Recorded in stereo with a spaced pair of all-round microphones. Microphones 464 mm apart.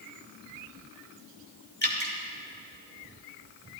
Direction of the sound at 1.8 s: 20° left (ahead or behind).